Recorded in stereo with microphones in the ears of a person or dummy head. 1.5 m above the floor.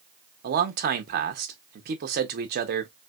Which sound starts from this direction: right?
A man speaking, at 0.4 s.